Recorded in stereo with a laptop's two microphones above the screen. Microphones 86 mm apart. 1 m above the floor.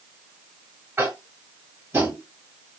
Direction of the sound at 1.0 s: 30° right (ahead or behind).